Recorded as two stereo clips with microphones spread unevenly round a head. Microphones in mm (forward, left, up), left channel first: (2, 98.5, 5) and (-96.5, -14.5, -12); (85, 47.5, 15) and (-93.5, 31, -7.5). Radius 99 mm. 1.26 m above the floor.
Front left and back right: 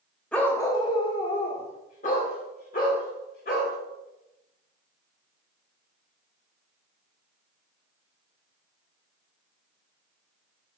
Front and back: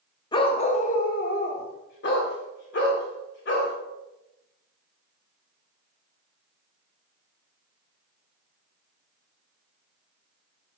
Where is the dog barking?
15° right, 0.7 m; by 3.8 s 15° left, 2.5 m.